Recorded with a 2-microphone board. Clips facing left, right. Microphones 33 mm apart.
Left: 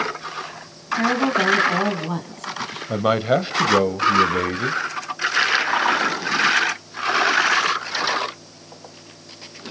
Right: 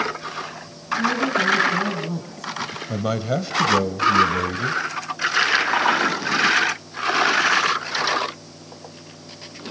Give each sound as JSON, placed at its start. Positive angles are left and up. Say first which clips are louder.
{"t": 0.9, "sound": "a woman speaking", "louder": "left 2 dB", "side_deg": 60, "distance_m": 2.5}
{"t": 2.9, "sound": "a man speaking", "louder": "left 6 dB", "side_deg": 35, "distance_m": 1.1}